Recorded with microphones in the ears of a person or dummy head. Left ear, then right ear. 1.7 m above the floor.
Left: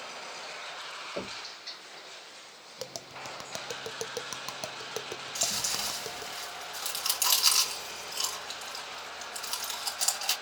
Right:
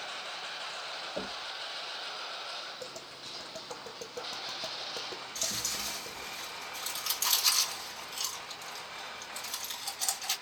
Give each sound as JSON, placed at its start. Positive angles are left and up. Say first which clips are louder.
{"t": 1.2, "sound": "knocking", "louder": "left 1 dB", "side_deg": 15, "distance_m": 1.1}
{"t": 2.8, "sound": "tapping", "louder": "left 2 dB", "side_deg": 65, "distance_m": 0.5}
{"t": 5.3, "sound": "chewing", "louder": "left 4 dB", "side_deg": 60, "distance_m": 2.5}